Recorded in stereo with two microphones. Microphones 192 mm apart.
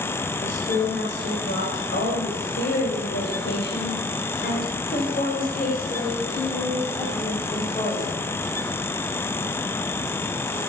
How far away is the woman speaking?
About 3.5 m.